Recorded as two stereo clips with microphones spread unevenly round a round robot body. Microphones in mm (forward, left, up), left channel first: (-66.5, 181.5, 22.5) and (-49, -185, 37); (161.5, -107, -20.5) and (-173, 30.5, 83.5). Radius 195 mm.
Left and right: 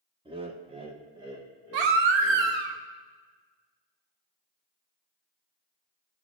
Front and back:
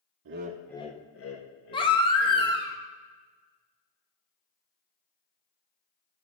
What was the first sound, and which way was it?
Laughter, 155° right.